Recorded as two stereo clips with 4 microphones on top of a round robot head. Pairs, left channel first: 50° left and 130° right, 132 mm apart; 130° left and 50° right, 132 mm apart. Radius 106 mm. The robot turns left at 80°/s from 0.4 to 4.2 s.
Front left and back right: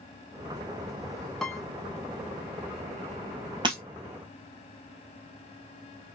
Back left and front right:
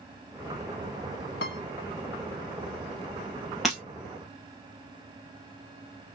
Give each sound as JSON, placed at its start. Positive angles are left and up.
{"t": 1.4, "sound": "a piano", "azimuth_deg": 140, "distance_m": 0.7}
{"t": 3.6, "sound": "breaking glass", "azimuth_deg": -140, "distance_m": 1.3}